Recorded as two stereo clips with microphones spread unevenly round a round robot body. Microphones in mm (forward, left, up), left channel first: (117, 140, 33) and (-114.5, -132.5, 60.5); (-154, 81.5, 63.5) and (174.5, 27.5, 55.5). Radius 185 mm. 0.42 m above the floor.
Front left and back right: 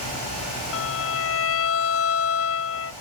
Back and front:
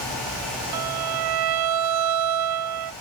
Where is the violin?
5° right, 0.9 m.